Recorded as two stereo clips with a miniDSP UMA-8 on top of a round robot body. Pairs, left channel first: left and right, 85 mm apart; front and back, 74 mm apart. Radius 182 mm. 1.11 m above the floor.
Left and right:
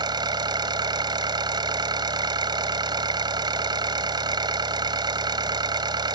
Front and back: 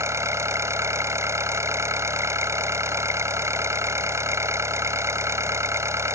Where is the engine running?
130° right.